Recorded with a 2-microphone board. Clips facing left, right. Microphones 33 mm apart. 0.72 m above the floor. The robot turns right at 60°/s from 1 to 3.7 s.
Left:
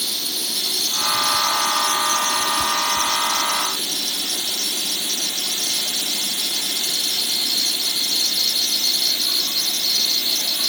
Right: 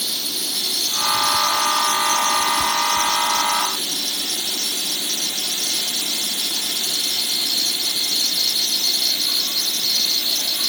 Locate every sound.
Only background noise.